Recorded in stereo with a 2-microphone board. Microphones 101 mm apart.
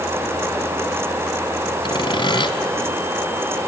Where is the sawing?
60° left (ahead or behind), 1.3 m.